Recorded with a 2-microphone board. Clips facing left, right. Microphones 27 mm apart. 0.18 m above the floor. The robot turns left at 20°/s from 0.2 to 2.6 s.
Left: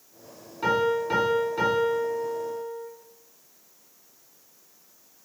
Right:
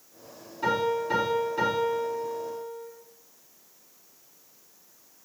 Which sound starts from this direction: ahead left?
A piano, at 0.6 s.